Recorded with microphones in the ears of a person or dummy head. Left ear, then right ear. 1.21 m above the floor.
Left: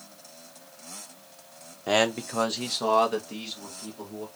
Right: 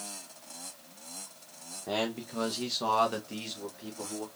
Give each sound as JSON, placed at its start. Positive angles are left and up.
{"t": 1.9, "sound": "a man speaking", "side_deg": 75, "distance_m": 0.9}